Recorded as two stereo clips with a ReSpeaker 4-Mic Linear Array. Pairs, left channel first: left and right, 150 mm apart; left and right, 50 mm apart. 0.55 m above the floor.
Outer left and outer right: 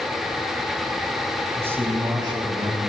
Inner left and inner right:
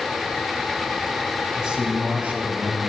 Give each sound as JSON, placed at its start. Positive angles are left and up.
{"t": 1.6, "sound": "a man speaking", "side_deg": -15, "distance_m": 3.5}